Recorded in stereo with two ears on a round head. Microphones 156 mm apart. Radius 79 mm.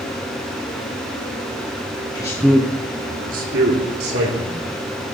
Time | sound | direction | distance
2.1 | a man speaking | 25° left (ahead or behind) | 0.9 m